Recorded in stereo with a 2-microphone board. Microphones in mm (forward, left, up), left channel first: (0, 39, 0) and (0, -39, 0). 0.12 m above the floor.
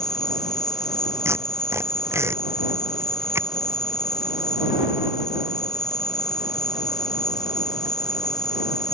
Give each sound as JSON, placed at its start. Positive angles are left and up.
{"t": 0.0, "sound": "an insect", "side_deg": 55}
{"t": 1.2, "sound": "tape being pulled", "side_deg": -35}